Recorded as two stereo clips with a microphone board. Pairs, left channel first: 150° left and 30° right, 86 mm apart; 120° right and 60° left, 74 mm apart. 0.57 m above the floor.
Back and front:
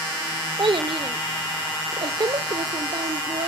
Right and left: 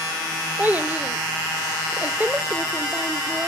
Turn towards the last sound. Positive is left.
turn(degrees=-10)